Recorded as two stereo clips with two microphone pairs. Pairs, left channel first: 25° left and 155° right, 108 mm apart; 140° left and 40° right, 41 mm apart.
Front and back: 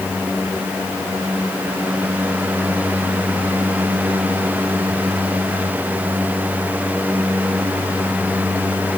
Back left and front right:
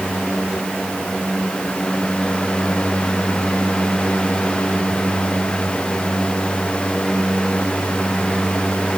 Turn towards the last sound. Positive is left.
No sound to turn to.